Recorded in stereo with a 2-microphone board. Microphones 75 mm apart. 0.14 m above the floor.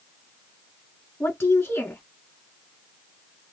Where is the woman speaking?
35° left (ahead or behind), 1.5 m.